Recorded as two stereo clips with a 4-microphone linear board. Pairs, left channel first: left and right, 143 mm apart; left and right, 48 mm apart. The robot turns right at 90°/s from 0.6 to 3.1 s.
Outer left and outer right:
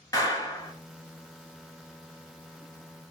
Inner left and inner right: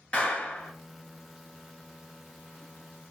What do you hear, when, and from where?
0.1 s a clap: 25° left (ahead or behind), 1.0 m; by 0.7 s 20° left (ahead or behind), 1.0 m